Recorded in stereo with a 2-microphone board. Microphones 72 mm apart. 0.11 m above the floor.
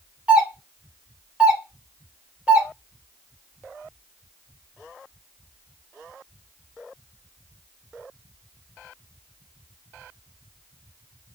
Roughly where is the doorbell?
Centre.